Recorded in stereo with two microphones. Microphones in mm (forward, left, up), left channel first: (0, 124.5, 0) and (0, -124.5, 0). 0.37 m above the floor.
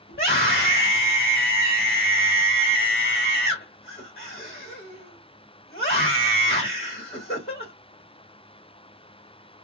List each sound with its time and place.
0.1 s a scream: 40° left (ahead or behind), 1.8 m